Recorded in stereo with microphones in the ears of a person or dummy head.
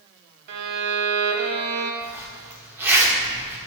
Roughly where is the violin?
Right.